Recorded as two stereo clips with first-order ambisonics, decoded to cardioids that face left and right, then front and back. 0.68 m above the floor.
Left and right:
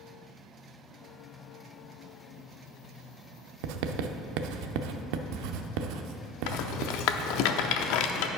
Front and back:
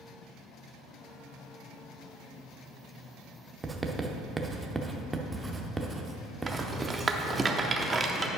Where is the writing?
100° right, 0.6 m.